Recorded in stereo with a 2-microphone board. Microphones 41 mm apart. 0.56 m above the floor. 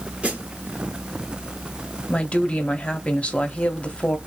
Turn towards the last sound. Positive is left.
turn(degrees=30)  # may be behind; listen again after turning